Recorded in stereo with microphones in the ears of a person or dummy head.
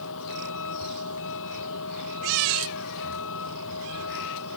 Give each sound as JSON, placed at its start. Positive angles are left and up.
{"t": 0.0, "sound": "a vehicle", "side_deg": 75}